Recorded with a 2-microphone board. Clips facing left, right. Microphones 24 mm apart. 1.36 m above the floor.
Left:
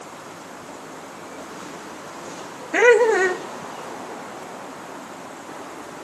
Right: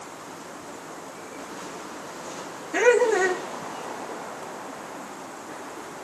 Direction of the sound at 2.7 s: 35° left (ahead or behind).